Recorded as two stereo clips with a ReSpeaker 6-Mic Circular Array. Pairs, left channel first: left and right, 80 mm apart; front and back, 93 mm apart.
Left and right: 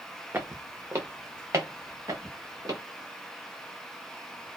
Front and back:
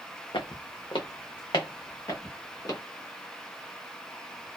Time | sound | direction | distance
0.3 | footsteps | 25° right | 0.6 m